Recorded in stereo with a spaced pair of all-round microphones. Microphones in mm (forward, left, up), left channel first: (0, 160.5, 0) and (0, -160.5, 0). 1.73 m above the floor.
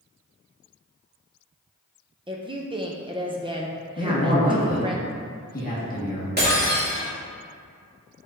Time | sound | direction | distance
2.3 | a woman speaking | 15° right (ahead or behind) | 0.5 m
4.0 | a man speaking | 25° left (ahead or behind) | 1.5 m
6.4 | breaking glass | 30° right (ahead or behind) | 2 m